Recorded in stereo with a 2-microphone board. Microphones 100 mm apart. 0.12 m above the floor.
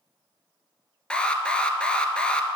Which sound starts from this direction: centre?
An alarm, at 1.1 s.